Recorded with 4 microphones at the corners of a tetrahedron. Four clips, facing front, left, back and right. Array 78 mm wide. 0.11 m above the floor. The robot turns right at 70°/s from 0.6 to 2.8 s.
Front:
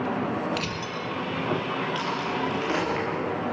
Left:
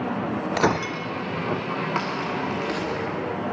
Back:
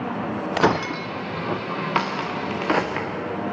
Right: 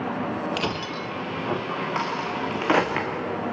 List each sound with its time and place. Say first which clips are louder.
0.6 s breaking glass: left 5 dB, back 10 dB; 155° left, 1.3 m; by 1.1 s 170° right, 1.3 m
1.9 s a crack: even, back 3 dB; straight behind, 5 m; by 3.1 s 120° right, 5 m